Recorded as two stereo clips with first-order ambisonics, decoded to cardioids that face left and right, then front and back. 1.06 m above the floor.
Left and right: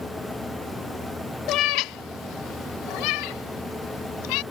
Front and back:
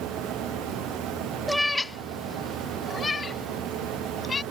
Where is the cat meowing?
95° left; by 4.4 s 75° left.